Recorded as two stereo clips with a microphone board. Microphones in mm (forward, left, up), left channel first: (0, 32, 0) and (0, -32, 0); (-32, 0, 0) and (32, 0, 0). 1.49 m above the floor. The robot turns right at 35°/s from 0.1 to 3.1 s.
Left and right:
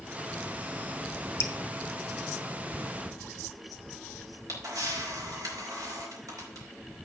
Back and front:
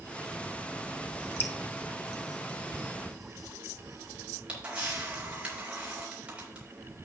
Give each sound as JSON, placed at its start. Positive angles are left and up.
{"t": 1.4, "sound": "dripping", "azimuth_deg": 125, "distance_m": 0.9}
{"t": 4.2, "sound": "a camera shutter", "azimuth_deg": -70, "distance_m": 4.0}